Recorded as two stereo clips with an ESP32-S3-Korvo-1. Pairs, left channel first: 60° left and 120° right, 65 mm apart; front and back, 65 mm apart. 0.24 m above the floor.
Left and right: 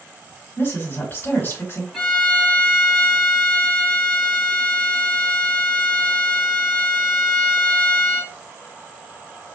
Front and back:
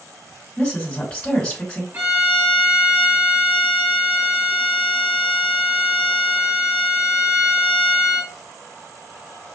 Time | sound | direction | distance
0.6 | a woman speaking | 60° left | 1.8 m
1.9 | a violin | 140° left | 1.2 m